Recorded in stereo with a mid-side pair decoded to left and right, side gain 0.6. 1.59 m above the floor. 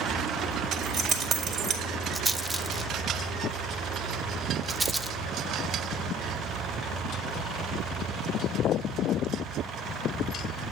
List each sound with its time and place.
0.7 s keys jangling: 55° right, 4.5 m
2.1 s a rattle: 15° right, 1.3 m